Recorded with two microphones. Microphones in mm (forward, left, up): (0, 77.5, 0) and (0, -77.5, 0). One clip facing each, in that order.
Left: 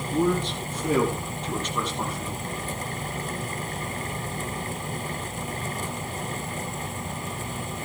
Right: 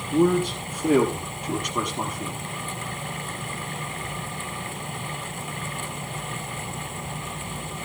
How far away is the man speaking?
About 7.5 m.